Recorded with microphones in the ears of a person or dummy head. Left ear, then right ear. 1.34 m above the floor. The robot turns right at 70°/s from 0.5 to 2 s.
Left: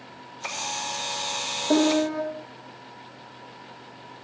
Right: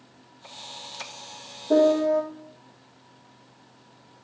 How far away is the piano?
About 3 m.